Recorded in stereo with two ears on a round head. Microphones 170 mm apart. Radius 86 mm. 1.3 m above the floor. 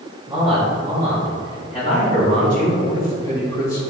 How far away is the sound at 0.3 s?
About 2.5 m.